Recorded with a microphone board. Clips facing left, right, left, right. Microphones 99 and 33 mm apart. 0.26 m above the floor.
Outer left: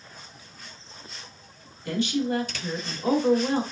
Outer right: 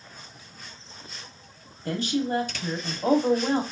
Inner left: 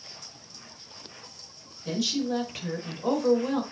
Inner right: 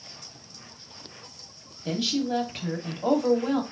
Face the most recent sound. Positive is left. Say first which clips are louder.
# outer left 1 dB, inner right 1 dB
turn(degrees=-40)  # may be behind; listen again after turning